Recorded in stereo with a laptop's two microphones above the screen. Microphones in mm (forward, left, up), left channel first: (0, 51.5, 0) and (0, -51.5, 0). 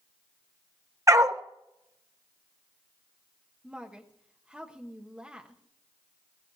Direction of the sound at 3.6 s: 10° right (ahead or behind).